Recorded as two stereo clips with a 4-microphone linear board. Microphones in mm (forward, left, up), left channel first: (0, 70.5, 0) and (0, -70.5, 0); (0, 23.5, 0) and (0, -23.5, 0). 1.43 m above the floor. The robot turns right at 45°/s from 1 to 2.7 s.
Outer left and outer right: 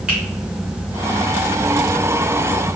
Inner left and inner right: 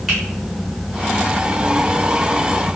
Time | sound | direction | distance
0.1 | a finger snap | 5° right (ahead or behind) | 1.8 m